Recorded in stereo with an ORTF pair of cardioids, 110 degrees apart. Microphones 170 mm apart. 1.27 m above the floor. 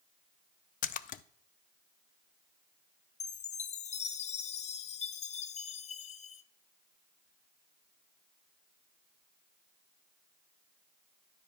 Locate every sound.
0.8 s a splash: 55° left, 0.5 m
3.2 s a chime: 40° left, 0.7 m